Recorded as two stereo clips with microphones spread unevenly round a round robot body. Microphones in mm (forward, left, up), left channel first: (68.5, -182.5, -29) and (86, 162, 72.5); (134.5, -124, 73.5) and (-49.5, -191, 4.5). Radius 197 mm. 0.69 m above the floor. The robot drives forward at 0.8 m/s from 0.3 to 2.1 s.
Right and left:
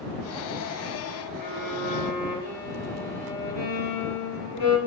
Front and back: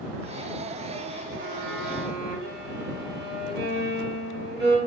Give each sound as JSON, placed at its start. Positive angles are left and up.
{"t": 1.4, "sound": "a violin", "azimuth_deg": -135, "distance_m": 0.7}